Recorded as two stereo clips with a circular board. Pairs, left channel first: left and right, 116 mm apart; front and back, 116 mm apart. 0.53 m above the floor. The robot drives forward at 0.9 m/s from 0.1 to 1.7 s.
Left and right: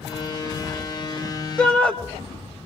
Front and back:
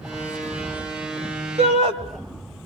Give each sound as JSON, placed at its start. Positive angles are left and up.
{"t": 1.6, "sound": "a shout", "azimuth_deg": 170, "distance_m": 2.0}